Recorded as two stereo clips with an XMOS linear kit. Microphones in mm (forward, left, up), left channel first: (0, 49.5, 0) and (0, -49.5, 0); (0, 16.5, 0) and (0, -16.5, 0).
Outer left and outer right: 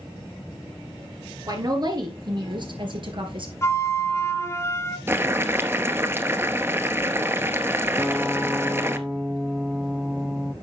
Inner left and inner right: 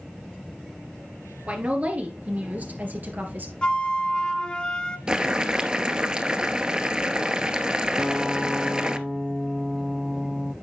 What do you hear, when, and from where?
1.5 s a woman speaking: 40° right (ahead or behind), 3 m; by 3.5 s 60° right (ahead or behind), 3.5 m
3.6 s a flute: 30° left (ahead or behind), 1.4 m
5.1 s boiling: 25° right (ahead or behind), 0.8 m
8.0 s a guitar: 5° right (ahead or behind), 1.0 m